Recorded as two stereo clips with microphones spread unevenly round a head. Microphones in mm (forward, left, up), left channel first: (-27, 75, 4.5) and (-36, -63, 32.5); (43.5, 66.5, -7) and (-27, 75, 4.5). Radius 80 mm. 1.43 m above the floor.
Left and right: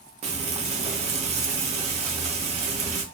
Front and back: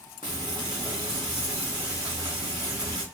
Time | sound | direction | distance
0.2 | frying | 140° right | 0.6 m